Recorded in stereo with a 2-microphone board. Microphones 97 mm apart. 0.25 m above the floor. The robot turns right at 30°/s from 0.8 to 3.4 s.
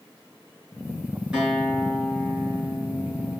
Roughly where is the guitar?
Ahead.